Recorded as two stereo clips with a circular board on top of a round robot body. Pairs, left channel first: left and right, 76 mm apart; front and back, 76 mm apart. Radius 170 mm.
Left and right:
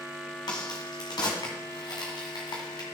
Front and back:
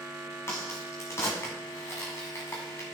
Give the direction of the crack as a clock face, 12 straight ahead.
10 o'clock.